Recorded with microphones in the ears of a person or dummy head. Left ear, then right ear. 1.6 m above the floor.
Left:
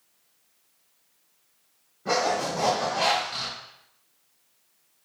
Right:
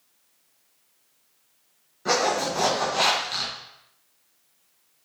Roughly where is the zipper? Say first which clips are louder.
Right 2 dB; right.